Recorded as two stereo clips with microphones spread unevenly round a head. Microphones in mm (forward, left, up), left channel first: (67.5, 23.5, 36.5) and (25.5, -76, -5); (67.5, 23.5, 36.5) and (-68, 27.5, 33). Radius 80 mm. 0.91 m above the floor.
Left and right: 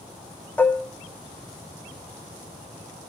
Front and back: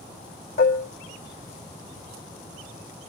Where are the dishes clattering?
10° right, 1.2 m.